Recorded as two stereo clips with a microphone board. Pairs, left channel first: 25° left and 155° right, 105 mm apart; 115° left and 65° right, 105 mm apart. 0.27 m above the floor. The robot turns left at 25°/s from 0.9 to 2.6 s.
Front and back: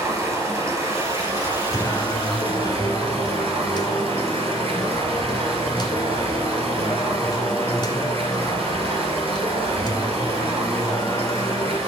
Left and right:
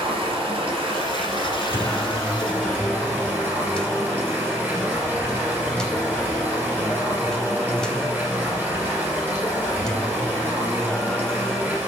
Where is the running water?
95° right, 3 m; by 11.9 s 140° right, 3 m.